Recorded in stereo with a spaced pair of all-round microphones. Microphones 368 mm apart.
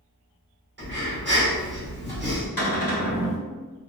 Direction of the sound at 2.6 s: 70° left (ahead or behind).